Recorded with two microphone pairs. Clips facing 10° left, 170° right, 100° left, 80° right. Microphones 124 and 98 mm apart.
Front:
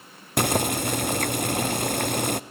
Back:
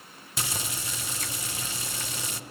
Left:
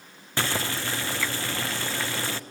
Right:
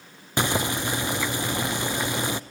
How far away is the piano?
I don't hear a piano.